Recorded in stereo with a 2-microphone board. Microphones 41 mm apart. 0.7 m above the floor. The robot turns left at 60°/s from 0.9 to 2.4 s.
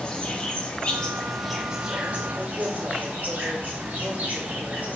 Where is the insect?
30° left, 0.9 m; by 5.0 s 60° right, 0.9 m.